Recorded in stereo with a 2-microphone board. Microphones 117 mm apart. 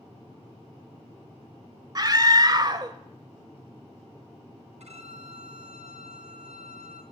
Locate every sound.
1.9 s a scream: 35° right (ahead or behind), 1.0 m
4.8 s a violin: 70° right (ahead or behind), 3.5 m